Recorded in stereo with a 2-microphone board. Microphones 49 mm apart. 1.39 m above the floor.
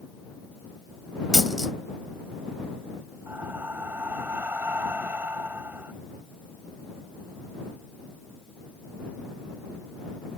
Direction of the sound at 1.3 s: Centre (ahead or behind).